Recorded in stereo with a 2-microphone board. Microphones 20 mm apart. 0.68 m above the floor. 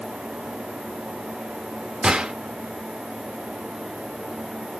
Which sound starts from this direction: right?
A gunshot, at 2.0 s.